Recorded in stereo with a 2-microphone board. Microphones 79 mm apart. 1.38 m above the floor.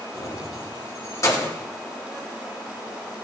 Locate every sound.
0.1 s keys jangling: 40° left (ahead or behind), 3.5 m